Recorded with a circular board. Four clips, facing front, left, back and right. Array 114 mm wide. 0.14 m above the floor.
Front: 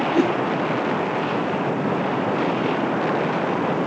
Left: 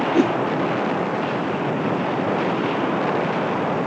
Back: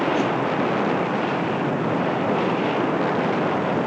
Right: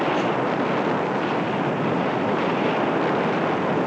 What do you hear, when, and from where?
0.1 s a whoosh: 65° left, 0.5 m